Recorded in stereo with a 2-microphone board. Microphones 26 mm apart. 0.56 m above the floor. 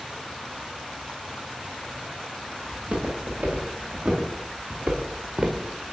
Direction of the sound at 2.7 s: 75° right (ahead or behind).